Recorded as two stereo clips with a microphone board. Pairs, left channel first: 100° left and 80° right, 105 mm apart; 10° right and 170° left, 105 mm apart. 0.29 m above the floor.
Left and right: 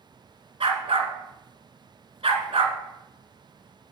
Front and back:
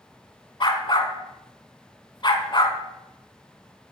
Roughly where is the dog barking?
Ahead right.